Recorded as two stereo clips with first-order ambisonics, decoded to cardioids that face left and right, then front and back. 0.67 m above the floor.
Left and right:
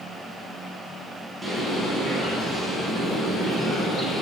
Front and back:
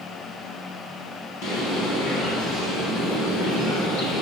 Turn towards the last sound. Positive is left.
turn(degrees=-10)